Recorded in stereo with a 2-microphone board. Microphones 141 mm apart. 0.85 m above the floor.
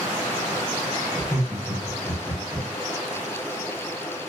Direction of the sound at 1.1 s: 20° left (ahead or behind).